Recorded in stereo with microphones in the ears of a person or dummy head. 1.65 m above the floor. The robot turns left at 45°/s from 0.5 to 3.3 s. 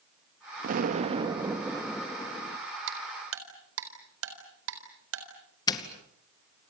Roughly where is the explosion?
Behind right.